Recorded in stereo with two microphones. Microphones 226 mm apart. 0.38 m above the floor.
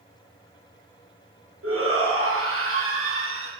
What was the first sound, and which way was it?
A shout, 80° right.